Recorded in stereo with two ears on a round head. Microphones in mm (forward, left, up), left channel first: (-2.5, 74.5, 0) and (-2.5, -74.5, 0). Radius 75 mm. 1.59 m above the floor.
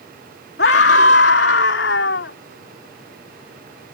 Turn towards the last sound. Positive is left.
turn(degrees=80)